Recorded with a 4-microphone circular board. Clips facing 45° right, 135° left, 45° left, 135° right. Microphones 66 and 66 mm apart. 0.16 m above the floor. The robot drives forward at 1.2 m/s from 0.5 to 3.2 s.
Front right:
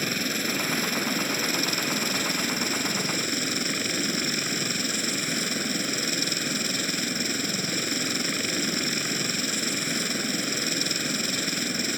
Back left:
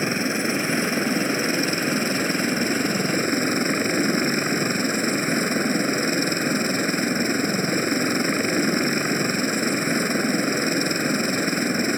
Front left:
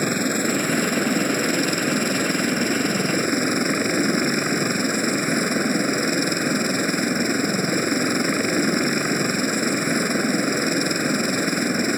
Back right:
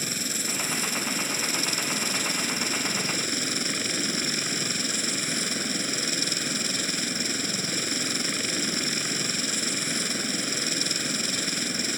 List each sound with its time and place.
0.0 s a helicopter: 75° left; by 12.0 s 85° left